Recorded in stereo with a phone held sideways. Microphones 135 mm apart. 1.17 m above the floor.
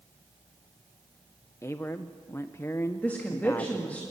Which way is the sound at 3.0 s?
10° left (ahead or behind).